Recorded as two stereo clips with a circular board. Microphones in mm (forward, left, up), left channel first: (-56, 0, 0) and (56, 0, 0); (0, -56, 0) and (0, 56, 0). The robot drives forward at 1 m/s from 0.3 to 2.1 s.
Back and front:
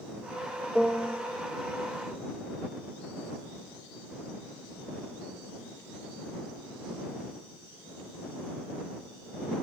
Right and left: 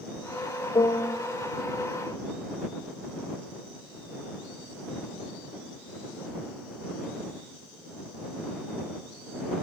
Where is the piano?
85° right, 0.8 m; by 1.2 s 120° right, 0.8 m.